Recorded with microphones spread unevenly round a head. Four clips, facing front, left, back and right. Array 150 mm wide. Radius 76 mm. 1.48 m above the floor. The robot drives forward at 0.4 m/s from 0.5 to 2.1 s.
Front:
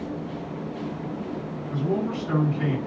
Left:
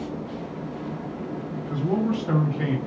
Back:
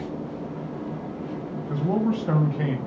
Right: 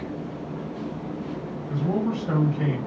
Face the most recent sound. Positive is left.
turn(degrees=180)